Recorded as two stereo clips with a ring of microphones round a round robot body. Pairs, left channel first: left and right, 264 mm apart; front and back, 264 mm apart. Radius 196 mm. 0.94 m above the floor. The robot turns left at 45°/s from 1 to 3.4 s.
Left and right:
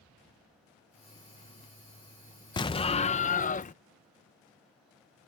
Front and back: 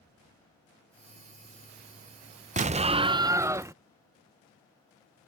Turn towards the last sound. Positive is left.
turn(degrees=110)